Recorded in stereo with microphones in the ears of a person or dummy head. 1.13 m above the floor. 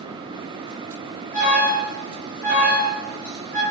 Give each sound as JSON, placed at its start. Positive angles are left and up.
{"t": 1.3, "sound": "an alarm", "side_deg": 55, "distance_m": 1.9}